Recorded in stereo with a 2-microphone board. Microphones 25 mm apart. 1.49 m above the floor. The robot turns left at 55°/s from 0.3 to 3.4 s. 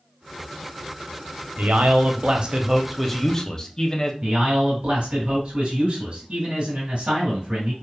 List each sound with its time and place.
1.6 s a man speaking: 105° right, 0.5 m; by 4.1 s 155° left, 0.5 m
4.2 s a man speaking: 55° right (ahead or behind), 1.8 m